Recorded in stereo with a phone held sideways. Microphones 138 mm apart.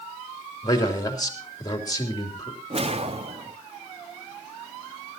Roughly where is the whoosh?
Right.